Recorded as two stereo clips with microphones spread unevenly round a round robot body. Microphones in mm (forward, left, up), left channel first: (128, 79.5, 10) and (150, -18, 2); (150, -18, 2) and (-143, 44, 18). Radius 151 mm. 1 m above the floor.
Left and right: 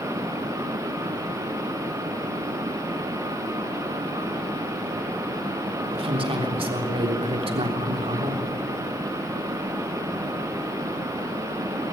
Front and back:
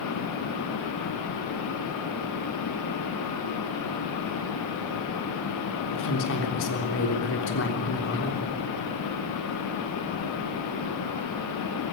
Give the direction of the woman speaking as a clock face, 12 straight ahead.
2 o'clock.